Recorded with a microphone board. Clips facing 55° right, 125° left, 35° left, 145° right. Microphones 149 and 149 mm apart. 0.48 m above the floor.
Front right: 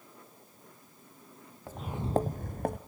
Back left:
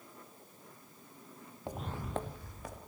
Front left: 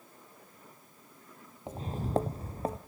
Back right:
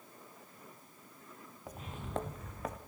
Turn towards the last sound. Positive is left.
turn(degrees=-25)